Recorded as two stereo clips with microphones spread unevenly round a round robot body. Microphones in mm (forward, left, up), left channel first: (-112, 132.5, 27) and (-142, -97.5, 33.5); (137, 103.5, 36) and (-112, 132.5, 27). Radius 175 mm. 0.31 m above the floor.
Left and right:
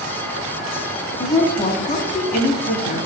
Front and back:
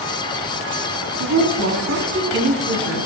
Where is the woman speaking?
150° left, 2.5 m.